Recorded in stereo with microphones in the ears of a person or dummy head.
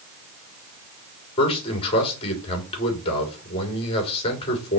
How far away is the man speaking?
About 4 m.